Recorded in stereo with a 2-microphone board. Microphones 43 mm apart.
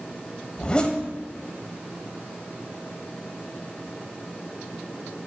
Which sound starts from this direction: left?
A zipper, at 0.6 s.